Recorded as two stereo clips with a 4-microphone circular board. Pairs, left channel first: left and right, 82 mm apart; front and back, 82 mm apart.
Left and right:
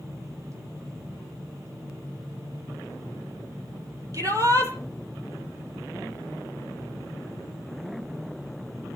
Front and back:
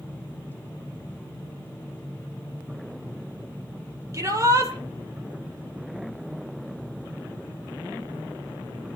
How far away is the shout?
About 4.5 m.